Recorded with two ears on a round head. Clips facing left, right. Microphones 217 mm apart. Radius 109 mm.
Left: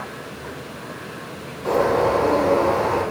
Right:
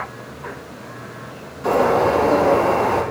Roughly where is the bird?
Right.